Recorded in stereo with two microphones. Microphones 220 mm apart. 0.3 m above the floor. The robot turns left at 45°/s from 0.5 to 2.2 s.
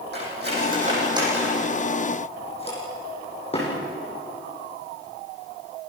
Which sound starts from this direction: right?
Cutlery clinking, at 0.1 s.